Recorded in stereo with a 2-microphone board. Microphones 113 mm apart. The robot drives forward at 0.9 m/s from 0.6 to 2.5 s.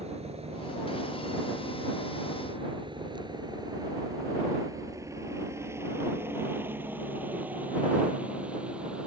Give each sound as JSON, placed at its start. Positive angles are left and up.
{"t": 0.0, "sound": "a helicopter", "side_deg": -65}